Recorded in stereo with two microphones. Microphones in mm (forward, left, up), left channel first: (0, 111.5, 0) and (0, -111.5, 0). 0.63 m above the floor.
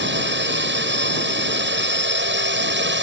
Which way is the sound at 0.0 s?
60° right (ahead or behind).